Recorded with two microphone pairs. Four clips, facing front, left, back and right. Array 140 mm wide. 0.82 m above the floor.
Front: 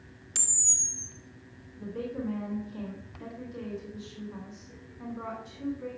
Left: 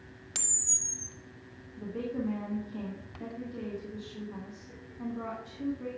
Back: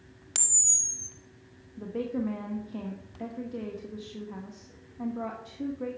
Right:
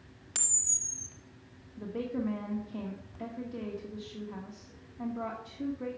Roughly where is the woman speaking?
Behind right.